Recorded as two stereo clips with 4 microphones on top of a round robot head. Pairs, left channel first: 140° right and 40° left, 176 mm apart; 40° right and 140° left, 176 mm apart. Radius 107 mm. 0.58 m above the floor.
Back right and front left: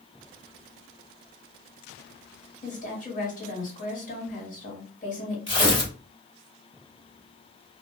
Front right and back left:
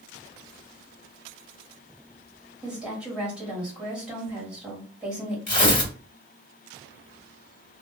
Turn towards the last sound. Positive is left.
turn(degrees=-80)